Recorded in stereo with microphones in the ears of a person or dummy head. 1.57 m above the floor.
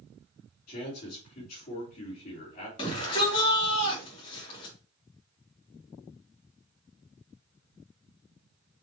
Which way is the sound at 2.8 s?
25° left (ahead or behind).